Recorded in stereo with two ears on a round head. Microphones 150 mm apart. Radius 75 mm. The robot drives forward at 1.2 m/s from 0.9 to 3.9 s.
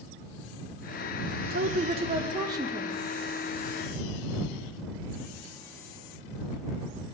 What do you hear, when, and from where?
1.5 s a woman speaking: 60° right (ahead or behind), 0.8 m; by 3.0 s 20° right (ahead or behind), 2.5 m